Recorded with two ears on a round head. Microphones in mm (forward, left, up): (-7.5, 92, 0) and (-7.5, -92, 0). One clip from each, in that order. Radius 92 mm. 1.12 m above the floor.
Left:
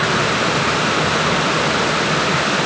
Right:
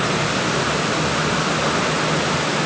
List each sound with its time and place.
Only background noise.